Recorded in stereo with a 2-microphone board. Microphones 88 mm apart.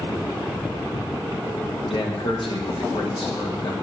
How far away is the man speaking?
About 1.4 m.